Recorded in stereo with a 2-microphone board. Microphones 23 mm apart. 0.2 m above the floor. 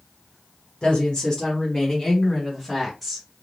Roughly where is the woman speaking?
Left.